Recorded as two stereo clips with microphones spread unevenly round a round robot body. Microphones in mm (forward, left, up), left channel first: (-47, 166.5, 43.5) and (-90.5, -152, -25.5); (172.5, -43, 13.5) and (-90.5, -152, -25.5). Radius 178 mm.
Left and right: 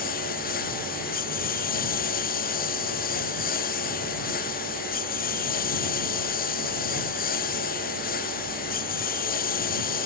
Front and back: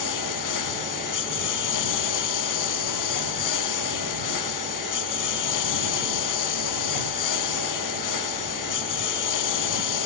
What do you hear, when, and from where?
0.0 s a lawn mower: 15° left